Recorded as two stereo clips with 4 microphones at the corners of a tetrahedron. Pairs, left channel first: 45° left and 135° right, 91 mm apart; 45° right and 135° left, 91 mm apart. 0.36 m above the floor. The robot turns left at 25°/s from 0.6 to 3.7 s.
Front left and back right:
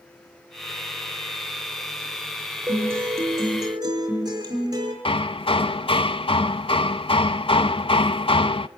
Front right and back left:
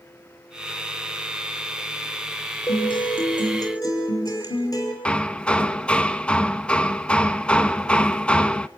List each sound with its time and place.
2.7 s a guitar: 65° right, 5.5 m; by 5.0 s 90° right, 5.5 m
5.0 s hammering: 35° left, 0.7 m